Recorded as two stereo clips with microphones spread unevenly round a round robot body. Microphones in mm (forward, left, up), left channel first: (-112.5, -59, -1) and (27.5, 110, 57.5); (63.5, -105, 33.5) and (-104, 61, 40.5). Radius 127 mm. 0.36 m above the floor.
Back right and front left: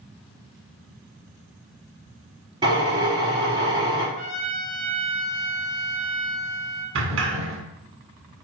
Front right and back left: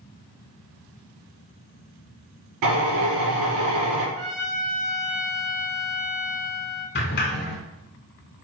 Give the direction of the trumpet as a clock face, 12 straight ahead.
9 o'clock.